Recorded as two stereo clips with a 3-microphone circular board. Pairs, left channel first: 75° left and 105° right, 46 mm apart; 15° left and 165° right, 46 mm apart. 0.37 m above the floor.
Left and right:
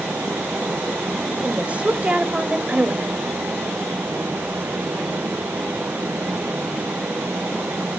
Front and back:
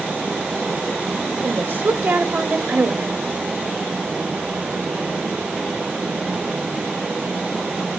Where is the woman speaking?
155° right, 1.1 m.